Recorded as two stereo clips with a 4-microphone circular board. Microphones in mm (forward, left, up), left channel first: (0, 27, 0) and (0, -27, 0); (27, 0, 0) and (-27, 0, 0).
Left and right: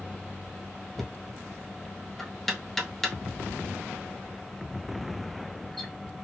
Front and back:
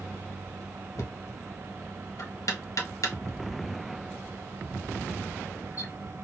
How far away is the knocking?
About 0.7 m.